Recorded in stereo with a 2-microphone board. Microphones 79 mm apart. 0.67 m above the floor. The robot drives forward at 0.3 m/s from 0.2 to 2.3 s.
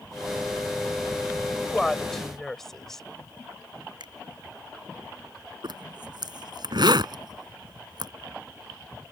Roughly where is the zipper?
Right.